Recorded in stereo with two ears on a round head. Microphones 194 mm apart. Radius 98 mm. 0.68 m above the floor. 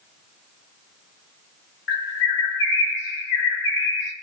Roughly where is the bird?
Left.